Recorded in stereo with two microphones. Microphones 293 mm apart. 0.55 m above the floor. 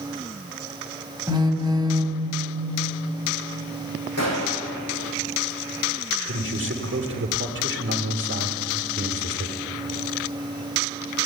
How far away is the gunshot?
About 4.5 m.